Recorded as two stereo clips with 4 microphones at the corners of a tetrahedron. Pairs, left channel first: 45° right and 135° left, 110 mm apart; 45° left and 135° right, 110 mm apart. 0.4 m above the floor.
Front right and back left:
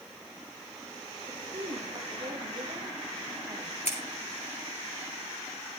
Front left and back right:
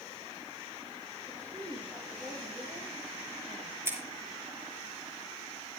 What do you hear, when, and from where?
1.3 s a woman speaking: 165° left, 10 m
3.9 s scissors: 65° right, 4 m